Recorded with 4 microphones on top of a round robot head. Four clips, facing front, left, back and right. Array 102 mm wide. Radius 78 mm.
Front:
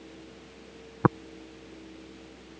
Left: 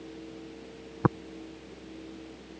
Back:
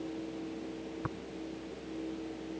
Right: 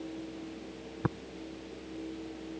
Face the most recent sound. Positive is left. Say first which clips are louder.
# left 8 dB, front 19 dB
turn(degrees=25)